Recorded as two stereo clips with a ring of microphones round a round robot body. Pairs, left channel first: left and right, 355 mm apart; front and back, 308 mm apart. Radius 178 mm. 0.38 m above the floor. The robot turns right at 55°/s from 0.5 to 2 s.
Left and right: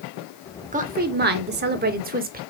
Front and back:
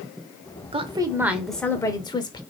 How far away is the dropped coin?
No dropped coin in this recording.